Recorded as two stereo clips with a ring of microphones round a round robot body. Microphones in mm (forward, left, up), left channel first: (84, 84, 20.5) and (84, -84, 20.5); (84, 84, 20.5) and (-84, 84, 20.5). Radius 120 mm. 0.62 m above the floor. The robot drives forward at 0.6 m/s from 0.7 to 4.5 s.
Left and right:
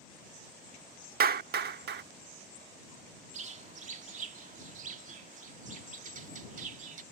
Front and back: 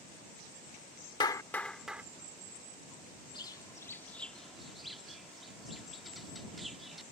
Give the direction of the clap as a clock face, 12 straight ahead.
2 o'clock.